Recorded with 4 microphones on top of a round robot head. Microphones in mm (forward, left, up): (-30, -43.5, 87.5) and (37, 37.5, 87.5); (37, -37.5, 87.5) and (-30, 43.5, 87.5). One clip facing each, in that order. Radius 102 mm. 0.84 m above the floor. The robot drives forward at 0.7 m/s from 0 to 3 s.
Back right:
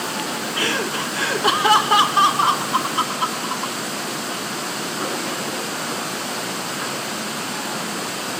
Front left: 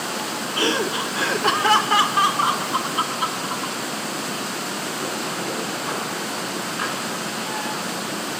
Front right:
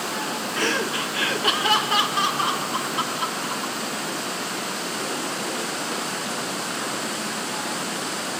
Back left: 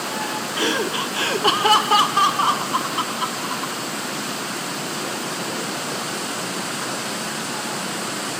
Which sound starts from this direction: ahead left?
Laughter, at 0.6 s.